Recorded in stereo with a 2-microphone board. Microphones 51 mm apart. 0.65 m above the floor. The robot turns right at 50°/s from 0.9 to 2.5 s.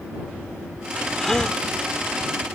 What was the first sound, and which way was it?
A gasp, 5° left (ahead or behind).